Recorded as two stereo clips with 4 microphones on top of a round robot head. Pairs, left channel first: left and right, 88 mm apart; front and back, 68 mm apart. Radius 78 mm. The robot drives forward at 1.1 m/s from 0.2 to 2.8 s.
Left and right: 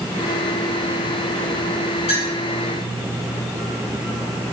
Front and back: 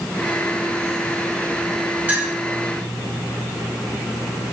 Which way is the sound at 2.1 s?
115° left.